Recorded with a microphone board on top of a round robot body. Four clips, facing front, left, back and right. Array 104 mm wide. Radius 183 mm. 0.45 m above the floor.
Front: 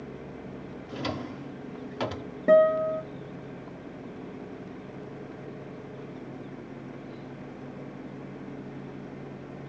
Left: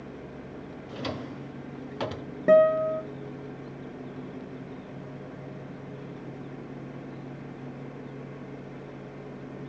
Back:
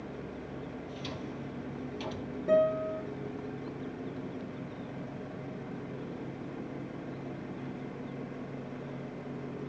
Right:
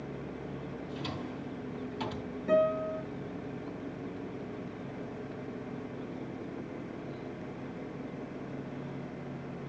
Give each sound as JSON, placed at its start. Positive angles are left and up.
{"t": 0.9, "sound": "a drawer", "azimuth_deg": 40, "distance_m": 1.0}
{"t": 2.5, "sound": "a guitar", "azimuth_deg": 60, "distance_m": 1.3}